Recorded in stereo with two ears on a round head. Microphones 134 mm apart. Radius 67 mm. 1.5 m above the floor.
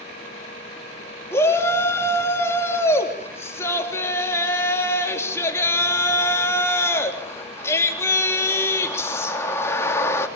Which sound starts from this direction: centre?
A shout, at 1.3 s.